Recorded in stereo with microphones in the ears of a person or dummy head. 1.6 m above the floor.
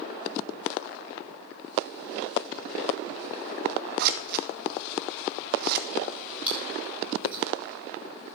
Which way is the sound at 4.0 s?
55° right (ahead or behind).